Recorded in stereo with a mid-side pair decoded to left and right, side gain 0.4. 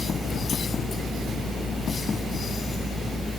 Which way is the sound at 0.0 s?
20° left.